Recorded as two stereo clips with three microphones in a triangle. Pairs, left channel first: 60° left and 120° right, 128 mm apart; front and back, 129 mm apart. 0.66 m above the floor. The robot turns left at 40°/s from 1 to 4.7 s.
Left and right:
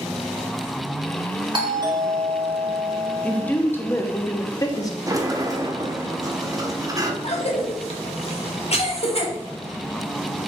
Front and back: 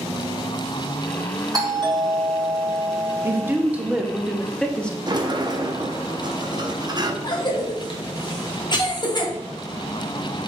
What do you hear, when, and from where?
1.5 s a doorbell: 145° right, 1.3 m; by 3.5 s 140° left, 1.3 m
3.2 s a woman speaking: 135° left, 0.6 m; by 5.0 s 75° left, 0.6 m
5.1 s a sliding door: 160° right, 0.5 m
7.2 s a cough: 45° left, 1.1 m